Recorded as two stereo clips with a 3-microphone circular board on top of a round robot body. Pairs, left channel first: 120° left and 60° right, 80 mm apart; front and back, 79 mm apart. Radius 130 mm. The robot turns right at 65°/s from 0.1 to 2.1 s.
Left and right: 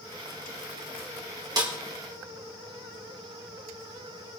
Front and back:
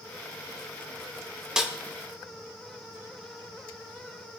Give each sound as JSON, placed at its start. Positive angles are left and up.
{"t": 1.6, "sound": "a snare drum", "azimuth_deg": -100, "distance_m": 1.9}